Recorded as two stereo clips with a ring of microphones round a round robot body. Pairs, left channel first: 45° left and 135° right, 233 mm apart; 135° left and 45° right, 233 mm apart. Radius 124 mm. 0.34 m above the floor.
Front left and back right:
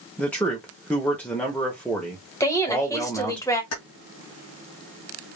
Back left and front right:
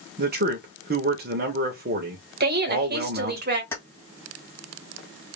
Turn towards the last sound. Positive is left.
turn(degrees=55)